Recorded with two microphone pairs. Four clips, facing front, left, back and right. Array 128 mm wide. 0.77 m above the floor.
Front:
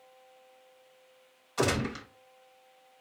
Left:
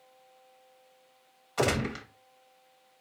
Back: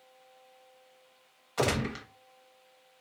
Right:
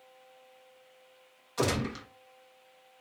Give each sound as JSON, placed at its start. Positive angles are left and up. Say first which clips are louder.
{"t": 1.6, "sound": "a gunshot", "louder": "left 2 dB, even", "azimuth_deg": 120, "distance_m": 1.1}